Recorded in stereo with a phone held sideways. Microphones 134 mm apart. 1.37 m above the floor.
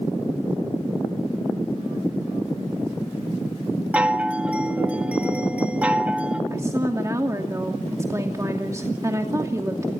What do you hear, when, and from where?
3.9 s a chime: 10° right (ahead or behind), 2 m
6.5 s a woman speaking: 25° right (ahead or behind), 2.5 m